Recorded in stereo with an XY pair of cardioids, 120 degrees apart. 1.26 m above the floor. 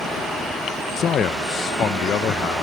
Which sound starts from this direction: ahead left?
A man speaking, at 1.0 s.